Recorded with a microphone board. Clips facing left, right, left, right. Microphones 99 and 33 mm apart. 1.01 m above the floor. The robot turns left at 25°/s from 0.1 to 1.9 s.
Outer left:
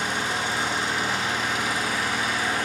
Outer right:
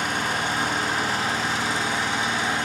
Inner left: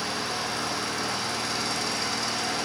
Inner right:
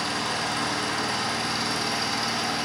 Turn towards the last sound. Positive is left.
turn(degrees=-150)